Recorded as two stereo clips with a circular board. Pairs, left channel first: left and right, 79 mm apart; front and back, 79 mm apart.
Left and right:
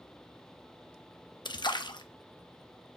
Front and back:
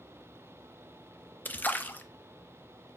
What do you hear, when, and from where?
1.4 s a splash: 65° left, 0.8 m